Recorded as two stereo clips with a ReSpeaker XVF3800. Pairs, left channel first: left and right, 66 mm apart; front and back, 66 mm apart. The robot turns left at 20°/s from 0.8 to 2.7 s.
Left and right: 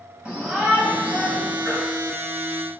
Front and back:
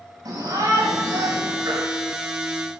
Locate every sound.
0.2 s a shout: 165° right, 7 m; by 1.6 s straight behind, 7 m
1.6 s a baby crying: straight behind, 7.5 m; by 1.9 s 175° left, 7.5 m